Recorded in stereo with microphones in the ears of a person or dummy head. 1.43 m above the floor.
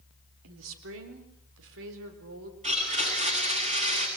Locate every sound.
0.4 s a woman speaking: 75° right (ahead or behind), 3 m; by 2.5 s 70° right (ahead or behind), 4.5 m
2.6 s a blender: 35° right (ahead or behind), 8 m